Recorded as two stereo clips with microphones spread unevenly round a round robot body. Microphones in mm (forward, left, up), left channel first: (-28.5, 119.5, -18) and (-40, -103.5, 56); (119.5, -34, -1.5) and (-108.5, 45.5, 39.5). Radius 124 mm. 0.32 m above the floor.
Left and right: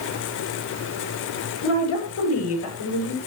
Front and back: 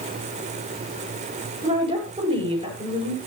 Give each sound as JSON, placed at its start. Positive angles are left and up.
{"t": 1.6, "sound": "a woman speaking", "azimuth_deg": 95, "distance_m": 9.0}